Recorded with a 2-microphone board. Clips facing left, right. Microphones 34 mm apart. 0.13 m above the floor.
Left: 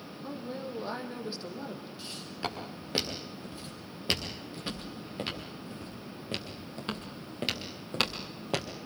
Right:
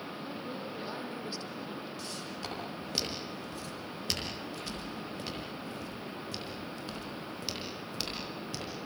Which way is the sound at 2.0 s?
20° left (ahead or behind).